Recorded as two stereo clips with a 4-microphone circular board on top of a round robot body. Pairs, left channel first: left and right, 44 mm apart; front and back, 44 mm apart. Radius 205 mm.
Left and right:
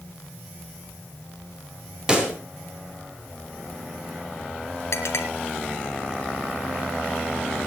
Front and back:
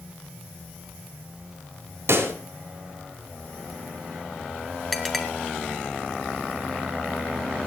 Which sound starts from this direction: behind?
A pop, at 2.1 s.